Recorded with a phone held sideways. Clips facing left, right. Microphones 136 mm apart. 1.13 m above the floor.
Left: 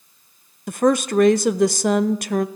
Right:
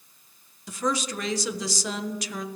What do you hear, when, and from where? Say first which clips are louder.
0.7 s a woman speaking: left 10 dB; 60° left (ahead or behind), 0.5 m